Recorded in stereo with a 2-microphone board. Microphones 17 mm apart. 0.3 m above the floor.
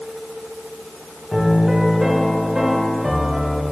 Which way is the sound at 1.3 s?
30° right (ahead or behind).